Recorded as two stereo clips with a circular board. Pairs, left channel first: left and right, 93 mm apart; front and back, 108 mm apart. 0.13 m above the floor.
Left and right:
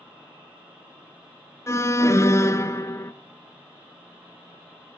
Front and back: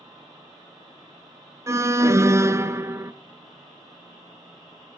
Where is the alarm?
130° left, 1.0 m.